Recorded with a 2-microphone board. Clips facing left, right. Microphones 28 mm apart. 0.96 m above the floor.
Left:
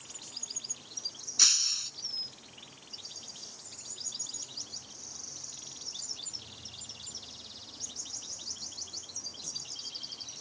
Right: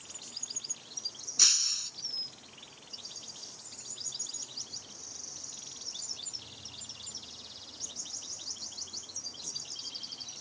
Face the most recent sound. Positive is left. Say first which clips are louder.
# left 1 dB
turn(degrees=5)  # may be behind; listen again after turning